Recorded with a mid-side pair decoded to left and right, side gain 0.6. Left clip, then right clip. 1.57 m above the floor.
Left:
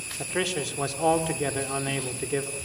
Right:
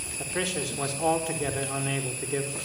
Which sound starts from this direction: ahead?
A man speaking, at 0.2 s.